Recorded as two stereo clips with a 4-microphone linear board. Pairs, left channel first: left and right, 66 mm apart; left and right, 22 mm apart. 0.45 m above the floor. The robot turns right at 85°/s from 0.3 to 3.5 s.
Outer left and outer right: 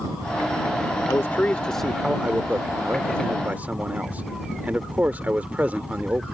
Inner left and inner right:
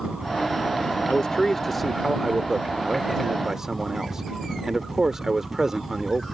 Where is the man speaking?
115° left; by 6.2 s 40° right.